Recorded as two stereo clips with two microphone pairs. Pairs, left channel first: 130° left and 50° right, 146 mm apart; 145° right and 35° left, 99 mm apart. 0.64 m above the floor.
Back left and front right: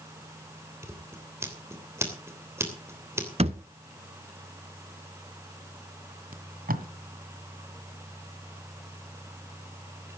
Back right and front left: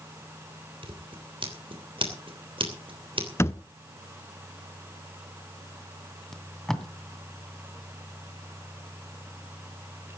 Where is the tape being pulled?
55° right, 1.9 m.